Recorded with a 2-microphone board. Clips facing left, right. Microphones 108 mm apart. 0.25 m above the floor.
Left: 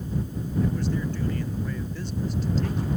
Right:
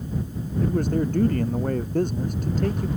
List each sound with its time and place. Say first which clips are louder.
0.6 s a man speaking: right 6 dB; 50° right (ahead or behind)